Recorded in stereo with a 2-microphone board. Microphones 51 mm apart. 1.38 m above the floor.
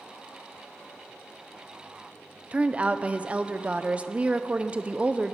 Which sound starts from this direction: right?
A woman speaking, at 2.5 s.